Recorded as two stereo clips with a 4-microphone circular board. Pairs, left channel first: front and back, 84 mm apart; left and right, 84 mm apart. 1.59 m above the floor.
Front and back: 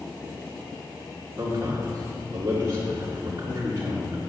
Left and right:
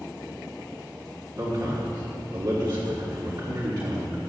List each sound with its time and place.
1.4 s a man speaking: 130° right, 3 m